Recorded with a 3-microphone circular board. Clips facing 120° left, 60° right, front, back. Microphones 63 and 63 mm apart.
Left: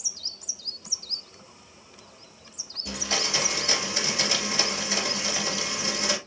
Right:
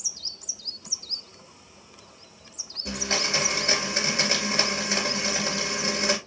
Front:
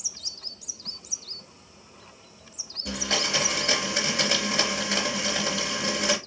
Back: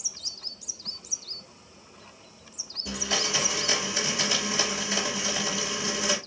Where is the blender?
30° right, 3.5 m.